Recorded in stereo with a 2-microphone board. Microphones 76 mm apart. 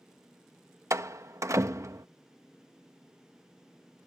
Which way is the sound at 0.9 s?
45° right (ahead or behind).